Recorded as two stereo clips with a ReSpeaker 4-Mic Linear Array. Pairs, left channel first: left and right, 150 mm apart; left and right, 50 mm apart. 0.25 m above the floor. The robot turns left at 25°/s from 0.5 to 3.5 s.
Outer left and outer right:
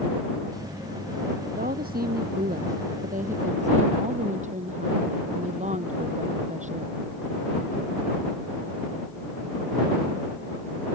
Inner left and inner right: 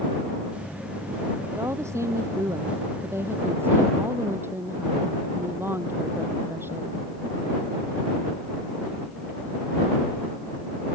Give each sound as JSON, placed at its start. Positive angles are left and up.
{"t": 1.5, "sound": "a woman speaking", "azimuth_deg": -75}